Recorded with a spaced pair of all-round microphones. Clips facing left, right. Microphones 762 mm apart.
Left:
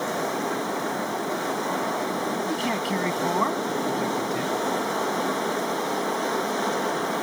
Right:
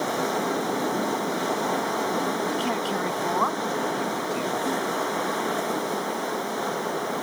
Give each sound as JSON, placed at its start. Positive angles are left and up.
{"t": 2.5, "sound": "a man speaking", "side_deg": 55}